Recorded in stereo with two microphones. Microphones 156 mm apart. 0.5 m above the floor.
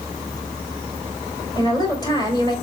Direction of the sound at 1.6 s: 25° left (ahead or behind).